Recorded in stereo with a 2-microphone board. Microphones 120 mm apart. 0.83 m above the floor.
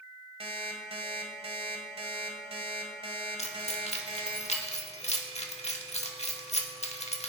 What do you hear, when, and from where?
0.4 s an alarm clock: 60° right (ahead or behind), 1.8 m
3.4 s keys jangling: 75° left (ahead or behind), 1.3 m